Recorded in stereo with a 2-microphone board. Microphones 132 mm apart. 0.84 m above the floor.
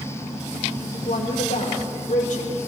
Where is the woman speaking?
75° left (ahead or behind), 2.5 m.